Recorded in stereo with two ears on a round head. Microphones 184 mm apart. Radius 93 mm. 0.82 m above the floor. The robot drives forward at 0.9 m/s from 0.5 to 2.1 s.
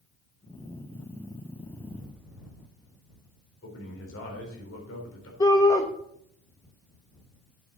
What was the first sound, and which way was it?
A man speaking, 75° left (ahead or behind).